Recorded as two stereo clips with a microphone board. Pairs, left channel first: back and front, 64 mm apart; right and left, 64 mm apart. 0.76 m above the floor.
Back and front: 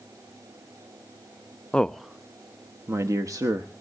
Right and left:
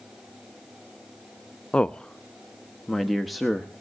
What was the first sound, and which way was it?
A man speaking, 135° right.